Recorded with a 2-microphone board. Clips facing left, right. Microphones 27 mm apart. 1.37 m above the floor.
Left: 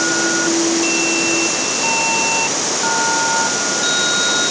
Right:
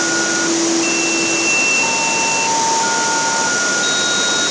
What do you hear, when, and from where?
Only background noise.